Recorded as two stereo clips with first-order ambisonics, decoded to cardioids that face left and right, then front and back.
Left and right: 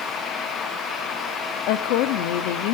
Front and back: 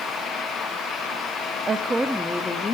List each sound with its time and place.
1.7 s a woman speaking: 110° left, 1.3 m; by 2.7 s 70° left, 1.5 m